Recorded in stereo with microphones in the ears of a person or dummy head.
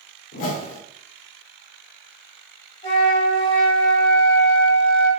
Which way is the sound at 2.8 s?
40° left (ahead or behind).